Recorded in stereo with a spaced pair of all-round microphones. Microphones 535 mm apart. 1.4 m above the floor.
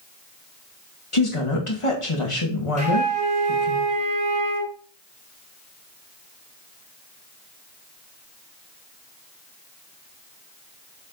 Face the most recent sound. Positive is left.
turn(degrees=-10)  # may be behind; listen again after turning